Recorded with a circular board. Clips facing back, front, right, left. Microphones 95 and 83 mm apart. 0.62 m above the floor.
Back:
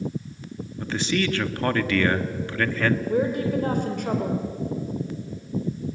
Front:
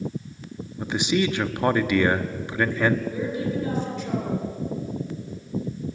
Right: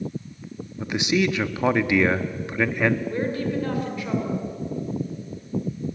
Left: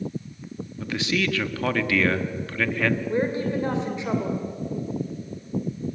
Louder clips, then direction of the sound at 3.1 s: Back 4 dB, left 1 dB; 155° left.